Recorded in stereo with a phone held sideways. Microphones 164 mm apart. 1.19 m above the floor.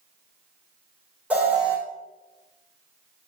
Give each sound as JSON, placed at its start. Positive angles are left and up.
{"t": 1.3, "sound": "an alarm", "side_deg": -10, "distance_m": 6.5}